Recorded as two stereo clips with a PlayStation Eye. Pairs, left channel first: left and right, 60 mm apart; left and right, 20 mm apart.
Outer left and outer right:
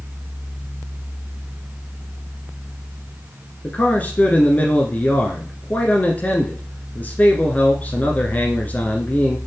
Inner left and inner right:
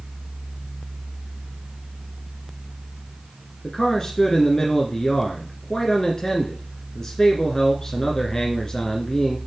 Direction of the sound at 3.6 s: 25° left (ahead or behind).